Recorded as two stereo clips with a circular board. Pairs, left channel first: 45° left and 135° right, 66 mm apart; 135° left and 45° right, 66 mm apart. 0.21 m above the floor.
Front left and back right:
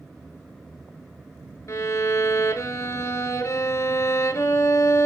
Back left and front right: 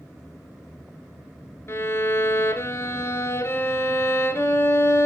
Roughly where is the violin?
Left.